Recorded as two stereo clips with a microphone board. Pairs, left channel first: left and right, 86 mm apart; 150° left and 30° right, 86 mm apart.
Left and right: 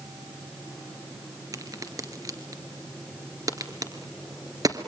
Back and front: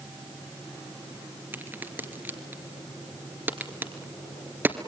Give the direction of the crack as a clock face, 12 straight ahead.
3 o'clock.